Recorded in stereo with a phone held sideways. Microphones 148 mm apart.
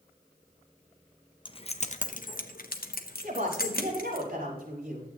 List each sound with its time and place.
1.4 s keys jangling: 35° left (ahead or behind), 0.7 m; by 4.2 s 80° left, 1.6 m
3.2 s a woman speaking: 90° right, 4.5 m